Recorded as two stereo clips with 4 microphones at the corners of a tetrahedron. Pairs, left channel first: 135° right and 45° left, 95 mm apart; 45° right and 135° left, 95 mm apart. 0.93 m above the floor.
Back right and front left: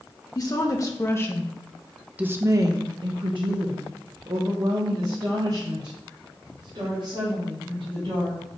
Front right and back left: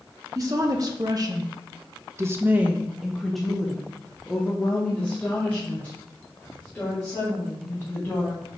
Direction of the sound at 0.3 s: Straight behind.